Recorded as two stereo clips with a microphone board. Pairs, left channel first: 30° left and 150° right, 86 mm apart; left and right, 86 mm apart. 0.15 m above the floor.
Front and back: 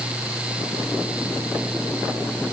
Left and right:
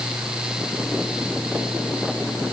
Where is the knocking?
I don't hear knocking.